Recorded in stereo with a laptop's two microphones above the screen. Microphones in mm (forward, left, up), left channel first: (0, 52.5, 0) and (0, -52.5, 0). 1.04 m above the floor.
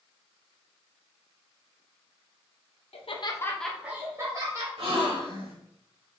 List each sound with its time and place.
2.9 s laughter: 70° left (ahead or behind), 0.7 m; by 4.7 s 35° right (ahead or behind), 1.4 m
4.8 s a gasp: 60° right (ahead or behind), 1.5 m